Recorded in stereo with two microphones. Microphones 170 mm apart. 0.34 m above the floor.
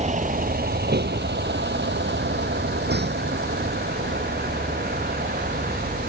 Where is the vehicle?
40° right (ahead or behind); by 6.1 s 60° right (ahead or behind).